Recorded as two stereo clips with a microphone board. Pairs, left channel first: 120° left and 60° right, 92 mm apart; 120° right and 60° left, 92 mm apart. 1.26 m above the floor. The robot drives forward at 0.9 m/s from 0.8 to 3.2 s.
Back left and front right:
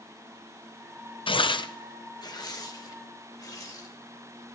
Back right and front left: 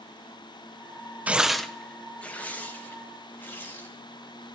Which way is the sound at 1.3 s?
130° left.